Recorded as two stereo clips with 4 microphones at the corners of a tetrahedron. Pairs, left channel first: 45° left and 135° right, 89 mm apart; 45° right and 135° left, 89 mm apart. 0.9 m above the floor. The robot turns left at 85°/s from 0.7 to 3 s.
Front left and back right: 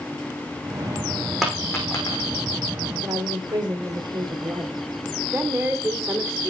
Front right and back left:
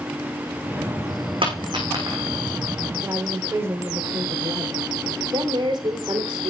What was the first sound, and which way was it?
A dropped coin, 135° left.